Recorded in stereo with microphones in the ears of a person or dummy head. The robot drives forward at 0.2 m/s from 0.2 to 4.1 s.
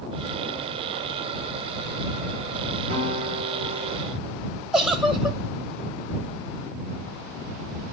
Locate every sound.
2.9 s a guitar: 40° right (ahead or behind), 6.5 m
4.7 s a giggle: 5° right (ahead or behind), 0.7 m